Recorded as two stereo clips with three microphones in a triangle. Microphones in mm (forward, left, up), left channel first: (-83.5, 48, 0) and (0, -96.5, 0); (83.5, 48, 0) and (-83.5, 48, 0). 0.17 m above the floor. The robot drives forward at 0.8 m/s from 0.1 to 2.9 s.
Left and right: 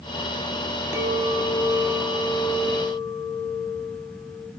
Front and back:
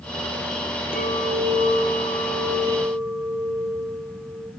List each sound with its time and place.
0.9 s a clink: 15° left, 1.5 m; by 4.5 s 115° left, 0.7 m